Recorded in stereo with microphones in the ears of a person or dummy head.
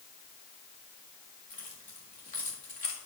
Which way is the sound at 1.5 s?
45° left (ahead or behind).